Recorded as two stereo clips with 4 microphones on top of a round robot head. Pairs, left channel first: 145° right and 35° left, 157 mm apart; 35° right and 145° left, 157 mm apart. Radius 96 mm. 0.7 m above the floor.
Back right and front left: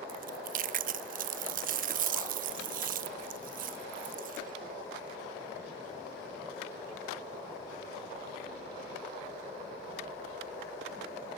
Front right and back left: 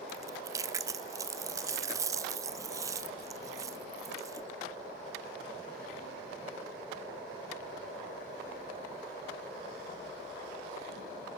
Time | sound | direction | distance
0.1 | chewing | 75° left | 0.6 m